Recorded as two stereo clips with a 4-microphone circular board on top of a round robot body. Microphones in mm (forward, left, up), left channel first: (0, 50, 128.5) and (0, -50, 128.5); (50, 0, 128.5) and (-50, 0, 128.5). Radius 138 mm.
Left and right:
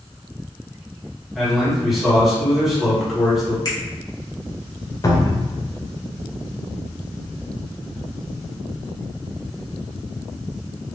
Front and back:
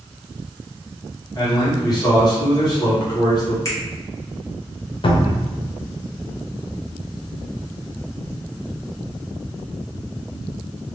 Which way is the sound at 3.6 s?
50° left.